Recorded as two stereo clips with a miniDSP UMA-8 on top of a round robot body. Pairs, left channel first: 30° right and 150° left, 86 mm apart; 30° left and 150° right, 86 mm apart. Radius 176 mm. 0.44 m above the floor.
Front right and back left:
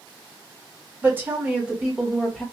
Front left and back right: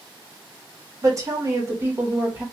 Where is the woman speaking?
160° right, 1.6 m; by 2.5 s 110° right, 1.3 m.